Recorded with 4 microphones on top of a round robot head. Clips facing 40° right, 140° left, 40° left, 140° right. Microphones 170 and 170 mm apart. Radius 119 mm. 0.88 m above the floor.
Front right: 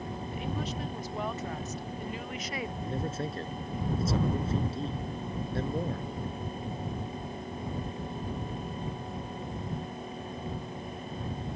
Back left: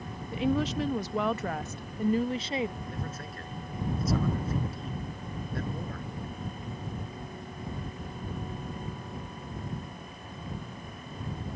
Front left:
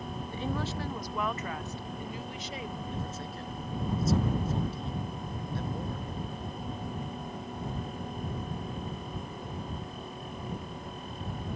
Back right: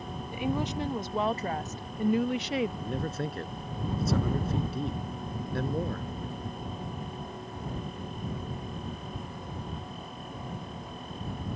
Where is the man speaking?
105° right.